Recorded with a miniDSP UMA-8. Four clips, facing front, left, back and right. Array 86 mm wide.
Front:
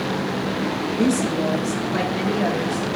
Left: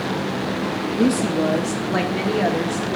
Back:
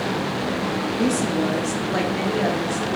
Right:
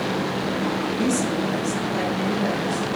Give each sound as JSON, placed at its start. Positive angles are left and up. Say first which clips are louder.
{"t": 1.0, "sound": "a woman speaking", "louder": "left 6 dB, front 2 dB", "azimuth_deg": 90, "distance_m": 0.6}